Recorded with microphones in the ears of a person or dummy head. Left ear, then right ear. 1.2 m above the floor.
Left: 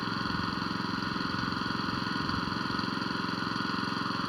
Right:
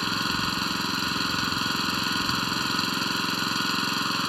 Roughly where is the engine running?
Right.